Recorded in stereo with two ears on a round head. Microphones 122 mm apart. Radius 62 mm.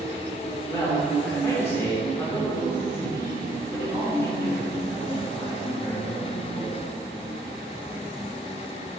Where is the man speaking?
25° left (ahead or behind), 4 m.